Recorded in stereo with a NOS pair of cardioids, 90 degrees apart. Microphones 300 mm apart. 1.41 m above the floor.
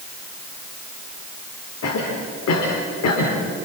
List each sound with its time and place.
1.8 s a cough: 60° left, 4.5 m